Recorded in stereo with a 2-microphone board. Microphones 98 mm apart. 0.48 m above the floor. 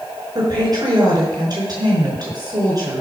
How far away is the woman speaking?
About 5.5 m.